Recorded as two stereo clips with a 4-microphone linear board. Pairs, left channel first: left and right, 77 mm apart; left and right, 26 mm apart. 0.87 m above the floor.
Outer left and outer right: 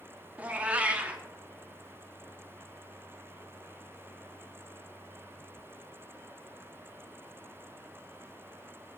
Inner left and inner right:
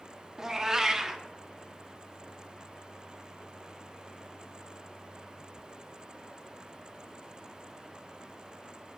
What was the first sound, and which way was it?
A cat meowing, 20° right (ahead or behind).